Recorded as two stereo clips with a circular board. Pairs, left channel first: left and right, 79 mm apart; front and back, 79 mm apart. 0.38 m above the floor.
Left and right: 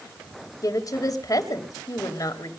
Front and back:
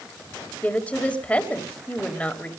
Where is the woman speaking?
70° left, 1.8 m.